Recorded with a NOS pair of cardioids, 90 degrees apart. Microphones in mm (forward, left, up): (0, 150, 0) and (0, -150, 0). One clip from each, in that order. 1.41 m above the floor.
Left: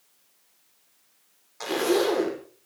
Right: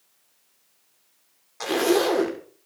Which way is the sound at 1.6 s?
25° right.